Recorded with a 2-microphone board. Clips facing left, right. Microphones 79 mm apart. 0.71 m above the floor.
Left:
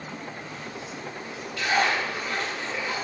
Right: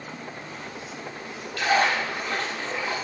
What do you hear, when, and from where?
1.6 s a splash: 70° right (ahead or behind), 0.6 m